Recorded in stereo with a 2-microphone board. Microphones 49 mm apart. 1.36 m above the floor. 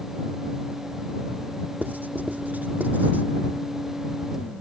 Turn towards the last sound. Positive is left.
turn(degrees=-35)  # may be behind; listen again after turning